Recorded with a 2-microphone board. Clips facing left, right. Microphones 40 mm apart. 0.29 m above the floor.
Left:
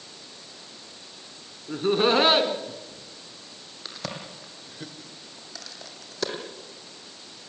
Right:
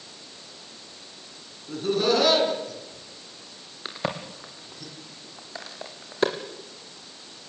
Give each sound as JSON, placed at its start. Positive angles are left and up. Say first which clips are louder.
{"t": 1.7, "sound": "laughter", "louder": "left 2 dB", "side_deg": 30, "distance_m": 3.5}
{"t": 3.9, "sound": "a crack", "louder": "right 6 dB", "side_deg": -30, "distance_m": 3.0}